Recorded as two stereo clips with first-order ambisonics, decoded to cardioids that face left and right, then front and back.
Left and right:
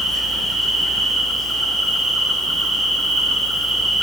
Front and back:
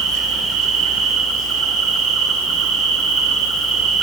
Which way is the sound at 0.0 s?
170° right.